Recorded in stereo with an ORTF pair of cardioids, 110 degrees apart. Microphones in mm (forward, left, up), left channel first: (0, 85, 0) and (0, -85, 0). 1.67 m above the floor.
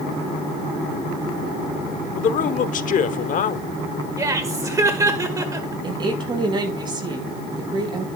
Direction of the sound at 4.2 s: 20° right.